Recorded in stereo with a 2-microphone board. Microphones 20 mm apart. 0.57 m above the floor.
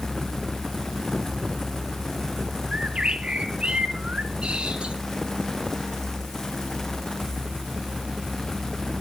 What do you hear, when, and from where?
2.7 s a bird: 65° right (ahead or behind), 1.2 m